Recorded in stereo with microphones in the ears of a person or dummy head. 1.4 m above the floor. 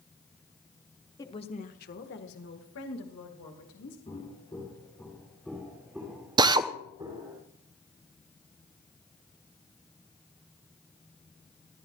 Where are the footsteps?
25° left (ahead or behind), 4.5 m; by 7.4 s 20° right (ahead or behind), 5.5 m.